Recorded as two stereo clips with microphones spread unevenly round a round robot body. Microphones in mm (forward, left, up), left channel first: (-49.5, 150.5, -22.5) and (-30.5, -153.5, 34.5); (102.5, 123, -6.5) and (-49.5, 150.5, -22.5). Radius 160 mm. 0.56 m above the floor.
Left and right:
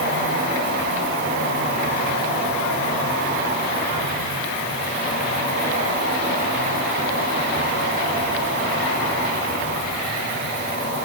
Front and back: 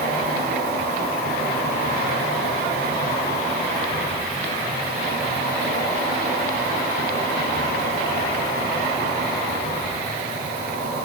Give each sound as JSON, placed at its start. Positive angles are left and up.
{"t": 0.0, "sound": "an insect", "azimuth_deg": -140, "distance_m": 4.0}